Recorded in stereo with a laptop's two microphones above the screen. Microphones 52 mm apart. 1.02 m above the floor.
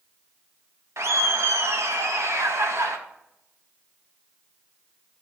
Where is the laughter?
65° right (ahead or behind), 1.0 m.